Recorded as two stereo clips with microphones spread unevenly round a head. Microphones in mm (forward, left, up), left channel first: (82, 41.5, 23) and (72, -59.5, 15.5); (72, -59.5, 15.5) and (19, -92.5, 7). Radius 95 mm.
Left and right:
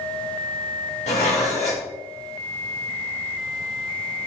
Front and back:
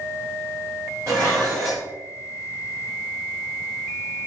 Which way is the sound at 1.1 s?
135° left.